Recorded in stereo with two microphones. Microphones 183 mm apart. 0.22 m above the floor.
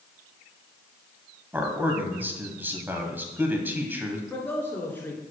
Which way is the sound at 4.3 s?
10° left (ahead or behind).